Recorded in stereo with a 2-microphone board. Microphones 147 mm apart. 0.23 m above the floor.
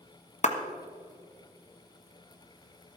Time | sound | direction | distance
0.4 | a clap | 50° left (ahead or behind) | 1.4 m